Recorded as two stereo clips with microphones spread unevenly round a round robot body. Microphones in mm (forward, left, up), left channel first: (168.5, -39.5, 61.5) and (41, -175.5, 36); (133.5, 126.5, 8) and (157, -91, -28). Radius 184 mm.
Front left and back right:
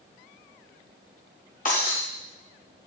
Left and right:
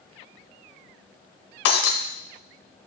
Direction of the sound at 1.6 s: 115° left.